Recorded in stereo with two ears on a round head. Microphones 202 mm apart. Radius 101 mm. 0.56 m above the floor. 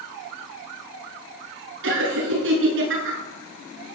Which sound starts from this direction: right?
Laughter, at 1.8 s.